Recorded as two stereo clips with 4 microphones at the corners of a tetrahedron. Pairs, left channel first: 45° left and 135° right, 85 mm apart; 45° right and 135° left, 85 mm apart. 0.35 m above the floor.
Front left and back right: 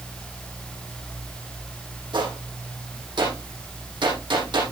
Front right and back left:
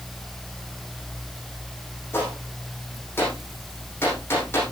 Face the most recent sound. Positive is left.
turn(degrees=-105)